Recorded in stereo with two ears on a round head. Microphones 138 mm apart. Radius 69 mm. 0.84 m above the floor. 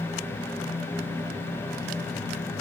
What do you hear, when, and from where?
Only background noise.